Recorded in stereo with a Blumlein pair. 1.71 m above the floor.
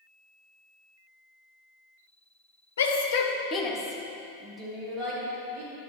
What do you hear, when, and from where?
2.8 s a shout: 65° left, 1.6 m; by 5.7 s 25° right, 4 m